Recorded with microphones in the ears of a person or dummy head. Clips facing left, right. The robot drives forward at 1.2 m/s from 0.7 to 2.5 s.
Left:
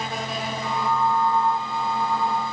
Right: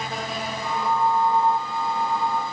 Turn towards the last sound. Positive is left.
No sound to turn to.